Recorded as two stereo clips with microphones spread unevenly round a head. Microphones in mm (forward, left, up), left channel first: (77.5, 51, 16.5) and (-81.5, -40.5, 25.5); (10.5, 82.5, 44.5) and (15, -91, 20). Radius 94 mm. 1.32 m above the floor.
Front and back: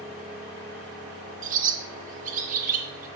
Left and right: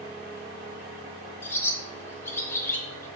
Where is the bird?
165° left, 0.8 m.